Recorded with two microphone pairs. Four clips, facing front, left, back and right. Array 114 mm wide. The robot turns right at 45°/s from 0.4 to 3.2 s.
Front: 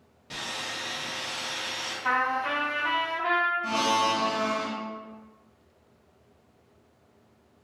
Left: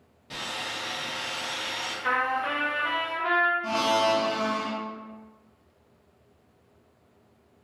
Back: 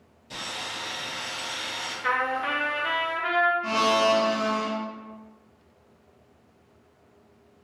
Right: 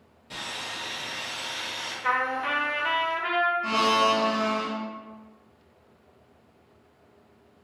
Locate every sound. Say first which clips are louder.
0.3 s sawing: left 2 dB, even; 25° left, 1.3 m; by 1.9 s 95° left, 1.3 m
2.0 s a trumpet: even, even; 175° left, 1.2 m; by 3.5 s 130° right, 1.2 m
3.6 s a blender: right 1 dB, back 3 dB; 120° right, 1.2 m